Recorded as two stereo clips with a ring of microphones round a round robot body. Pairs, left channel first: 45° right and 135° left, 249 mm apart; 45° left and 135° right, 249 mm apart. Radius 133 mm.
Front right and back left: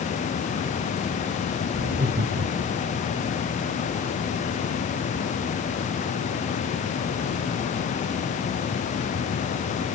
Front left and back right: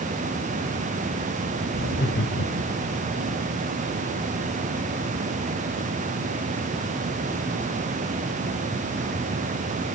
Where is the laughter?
90° left, 1.8 m.